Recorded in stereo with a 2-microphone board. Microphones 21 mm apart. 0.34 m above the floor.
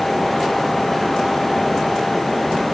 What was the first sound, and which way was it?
Only background noise.